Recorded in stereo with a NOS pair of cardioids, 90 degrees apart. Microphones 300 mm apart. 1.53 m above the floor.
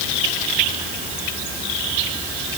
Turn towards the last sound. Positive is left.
No sound to turn to.